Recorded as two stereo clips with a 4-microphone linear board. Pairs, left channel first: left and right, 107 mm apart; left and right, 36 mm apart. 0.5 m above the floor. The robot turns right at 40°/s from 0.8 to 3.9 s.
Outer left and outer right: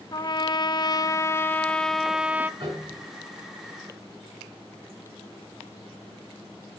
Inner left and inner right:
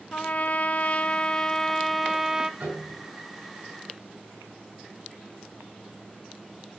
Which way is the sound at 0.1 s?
135° left.